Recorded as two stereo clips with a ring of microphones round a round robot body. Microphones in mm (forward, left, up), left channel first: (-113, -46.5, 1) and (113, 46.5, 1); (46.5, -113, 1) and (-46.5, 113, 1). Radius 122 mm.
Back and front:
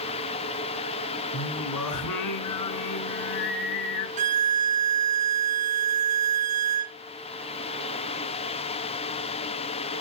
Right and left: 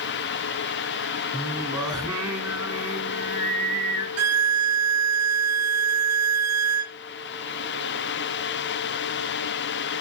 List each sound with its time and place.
1.3 s singing: 175° right, 2.5 m
4.2 s a violin: 85° left, 0.7 m